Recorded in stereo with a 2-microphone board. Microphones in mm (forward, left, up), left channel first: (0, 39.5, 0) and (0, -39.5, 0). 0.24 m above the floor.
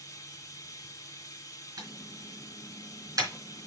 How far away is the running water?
About 1.4 m.